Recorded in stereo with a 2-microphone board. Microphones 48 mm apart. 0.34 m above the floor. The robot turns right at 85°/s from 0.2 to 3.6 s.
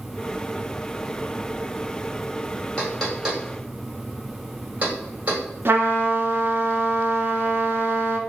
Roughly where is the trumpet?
Right.